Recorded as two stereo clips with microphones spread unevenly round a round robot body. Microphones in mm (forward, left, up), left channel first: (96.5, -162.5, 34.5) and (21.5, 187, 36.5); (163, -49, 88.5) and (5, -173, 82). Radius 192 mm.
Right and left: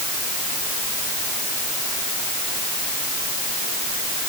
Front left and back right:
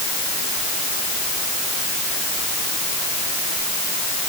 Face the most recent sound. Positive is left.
No sound to turn to.